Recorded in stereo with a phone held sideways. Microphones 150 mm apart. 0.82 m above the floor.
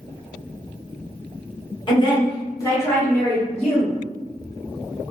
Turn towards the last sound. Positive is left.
turn(degrees=0)  # may be behind; listen again after turning